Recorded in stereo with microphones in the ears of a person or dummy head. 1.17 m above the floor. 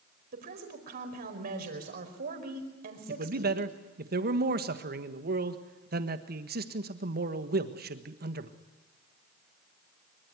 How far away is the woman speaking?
About 4.5 m.